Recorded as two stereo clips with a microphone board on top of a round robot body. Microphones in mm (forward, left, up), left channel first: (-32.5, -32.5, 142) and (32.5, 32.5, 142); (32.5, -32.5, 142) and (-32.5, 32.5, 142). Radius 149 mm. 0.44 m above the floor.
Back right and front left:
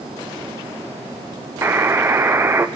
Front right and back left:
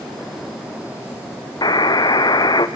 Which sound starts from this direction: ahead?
A buzzer, at 1.6 s.